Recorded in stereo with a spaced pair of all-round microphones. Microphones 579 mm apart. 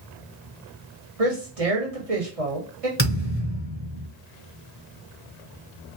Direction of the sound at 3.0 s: 20° left (ahead or behind).